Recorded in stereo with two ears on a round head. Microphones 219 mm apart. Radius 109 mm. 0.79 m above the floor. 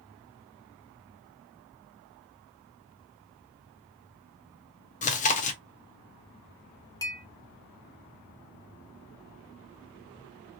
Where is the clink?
15° left (ahead or behind), 0.6 m.